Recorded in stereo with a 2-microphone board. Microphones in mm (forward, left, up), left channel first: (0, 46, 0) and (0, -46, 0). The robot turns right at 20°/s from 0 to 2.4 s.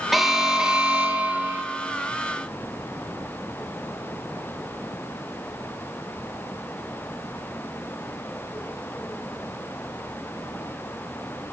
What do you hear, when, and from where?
0.1 s an alarm: straight behind, 0.8 m; by 1.6 s 145° right, 0.8 m